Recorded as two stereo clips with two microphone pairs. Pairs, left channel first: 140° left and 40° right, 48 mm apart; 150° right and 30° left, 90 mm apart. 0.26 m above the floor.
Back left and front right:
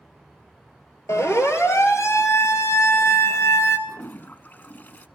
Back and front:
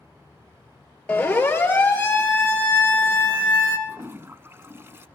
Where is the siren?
135° left, 4.5 m; by 3.8 s 140° left, 2.5 m.